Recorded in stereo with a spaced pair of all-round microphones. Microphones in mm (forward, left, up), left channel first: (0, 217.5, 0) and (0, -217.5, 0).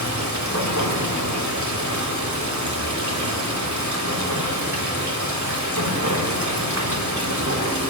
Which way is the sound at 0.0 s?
40° right (ahead or behind).